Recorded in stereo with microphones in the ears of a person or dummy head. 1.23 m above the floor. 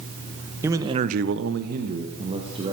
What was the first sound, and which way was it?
A man speaking, 20° right (ahead or behind).